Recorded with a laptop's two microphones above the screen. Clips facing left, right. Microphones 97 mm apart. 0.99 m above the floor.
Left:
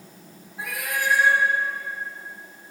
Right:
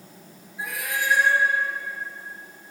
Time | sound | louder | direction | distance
0.6 | a cat meowing | left 1 dB | 60° left (ahead or behind) | 1.6 m